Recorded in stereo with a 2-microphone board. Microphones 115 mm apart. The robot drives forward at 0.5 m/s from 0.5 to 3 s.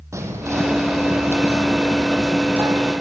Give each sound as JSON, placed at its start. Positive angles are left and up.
{"t": 0.1, "sound": "whispering", "side_deg": -25, "distance_m": 4.5}